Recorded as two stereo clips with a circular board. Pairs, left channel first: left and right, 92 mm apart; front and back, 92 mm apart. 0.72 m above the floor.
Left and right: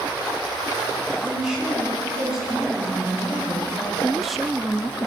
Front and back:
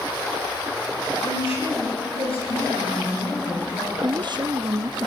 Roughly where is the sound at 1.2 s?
Ahead.